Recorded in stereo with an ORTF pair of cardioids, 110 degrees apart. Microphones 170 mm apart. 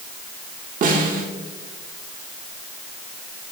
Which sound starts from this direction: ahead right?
A snare drum, at 0.8 s.